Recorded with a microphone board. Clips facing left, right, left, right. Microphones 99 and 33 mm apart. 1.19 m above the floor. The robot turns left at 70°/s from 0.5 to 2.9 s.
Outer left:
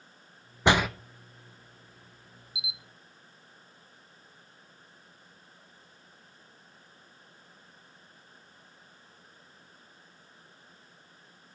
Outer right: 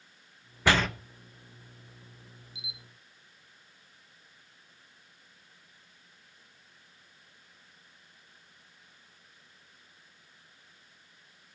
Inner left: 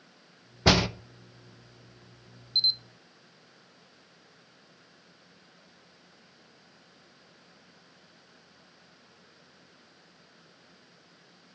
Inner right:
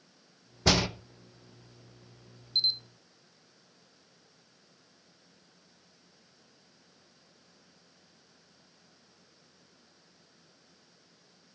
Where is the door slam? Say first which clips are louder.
Outer left 2 dB, inner left 3 dB; 20° left (ahead or behind), 0.9 m; by 0.9 s 5° left (ahead or behind), 0.9 m.